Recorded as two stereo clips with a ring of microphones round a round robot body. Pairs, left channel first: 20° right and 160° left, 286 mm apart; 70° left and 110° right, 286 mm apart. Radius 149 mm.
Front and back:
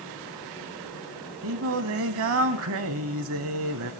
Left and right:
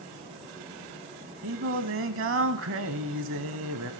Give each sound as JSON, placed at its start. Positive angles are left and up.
{"t": 1.4, "sound": "singing", "azimuth_deg": -160, "distance_m": 0.5}